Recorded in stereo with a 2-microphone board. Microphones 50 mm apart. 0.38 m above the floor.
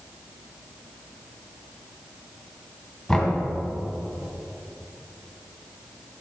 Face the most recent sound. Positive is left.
turn(degrees=10)  # may be behind; listen again after turning